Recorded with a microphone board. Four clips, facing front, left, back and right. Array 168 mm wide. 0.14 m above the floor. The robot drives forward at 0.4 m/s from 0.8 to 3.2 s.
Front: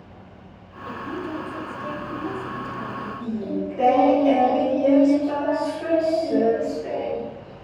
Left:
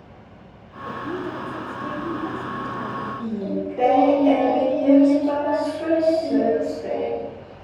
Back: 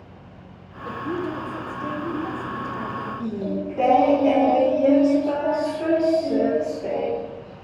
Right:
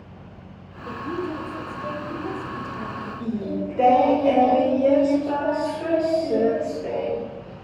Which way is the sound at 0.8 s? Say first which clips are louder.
Even, back 3 dB; 140° left.